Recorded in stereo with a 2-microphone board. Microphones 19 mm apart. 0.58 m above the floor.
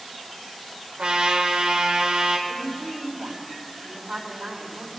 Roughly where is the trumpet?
Right.